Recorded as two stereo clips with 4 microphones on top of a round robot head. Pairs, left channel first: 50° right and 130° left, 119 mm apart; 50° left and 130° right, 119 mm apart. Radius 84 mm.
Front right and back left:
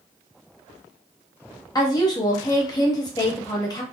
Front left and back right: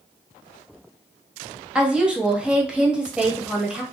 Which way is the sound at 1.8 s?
55° right.